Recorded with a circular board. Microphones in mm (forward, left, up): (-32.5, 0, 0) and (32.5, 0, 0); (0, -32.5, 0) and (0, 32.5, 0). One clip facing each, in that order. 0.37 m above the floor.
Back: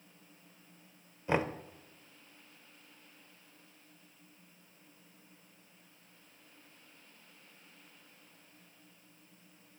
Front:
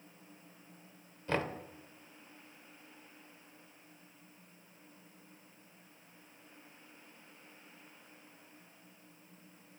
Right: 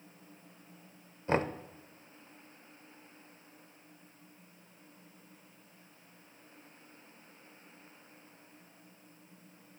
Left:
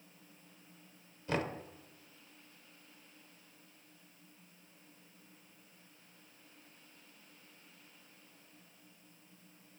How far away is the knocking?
About 0.6 m.